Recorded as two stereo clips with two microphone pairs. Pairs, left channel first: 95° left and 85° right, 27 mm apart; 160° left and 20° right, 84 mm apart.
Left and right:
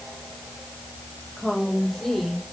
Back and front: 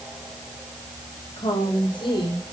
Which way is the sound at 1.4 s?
170° left.